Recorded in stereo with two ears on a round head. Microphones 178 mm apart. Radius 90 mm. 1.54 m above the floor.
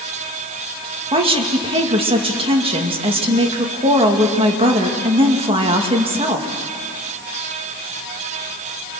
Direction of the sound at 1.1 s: 30° right (ahead or behind).